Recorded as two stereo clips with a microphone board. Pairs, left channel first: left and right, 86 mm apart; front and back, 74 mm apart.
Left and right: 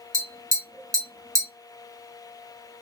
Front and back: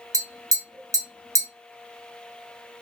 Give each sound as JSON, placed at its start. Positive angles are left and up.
{"t": 0.1, "sound": "tapping", "azimuth_deg": -135, "distance_m": 1.5}